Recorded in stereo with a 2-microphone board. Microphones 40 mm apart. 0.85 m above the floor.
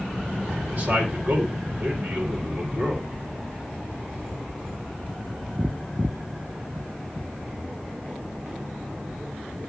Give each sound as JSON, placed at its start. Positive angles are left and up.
{"t": 0.6, "sound": "a man speaking", "side_deg": -45, "distance_m": 3.5}